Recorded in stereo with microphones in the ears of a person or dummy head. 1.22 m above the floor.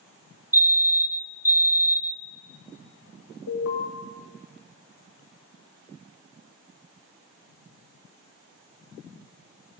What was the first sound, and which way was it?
A fire alarm, 15° right (ahead or behind).